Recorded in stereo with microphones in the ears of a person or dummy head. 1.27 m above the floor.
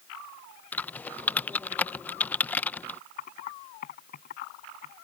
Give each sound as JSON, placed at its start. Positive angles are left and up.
{"t": 0.7, "sound": "typing on a keyboard", "side_deg": 5}
{"t": 3.2, "sound": "typing on a keyboard", "side_deg": 40}